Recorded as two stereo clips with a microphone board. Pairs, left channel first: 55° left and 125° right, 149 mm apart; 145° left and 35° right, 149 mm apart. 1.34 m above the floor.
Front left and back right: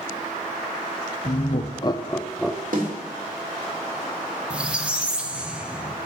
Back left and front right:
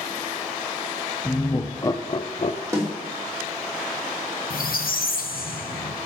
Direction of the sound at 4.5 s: 155° left.